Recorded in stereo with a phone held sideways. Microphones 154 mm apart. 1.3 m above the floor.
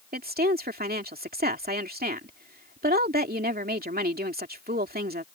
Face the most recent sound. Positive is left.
turn(degrees=-80)